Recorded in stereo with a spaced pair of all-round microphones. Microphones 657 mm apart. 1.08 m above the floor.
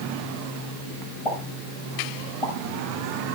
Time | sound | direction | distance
1.2 | a pop | 50° left (ahead or behind) | 5 m